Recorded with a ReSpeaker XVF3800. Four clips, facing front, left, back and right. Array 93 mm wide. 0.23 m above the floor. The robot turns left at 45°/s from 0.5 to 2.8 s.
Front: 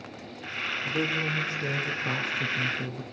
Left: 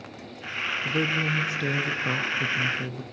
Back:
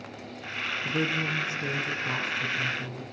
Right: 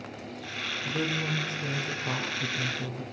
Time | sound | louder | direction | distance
0.8 | a woman speaking | left 4 dB, even | 130° left | 3 m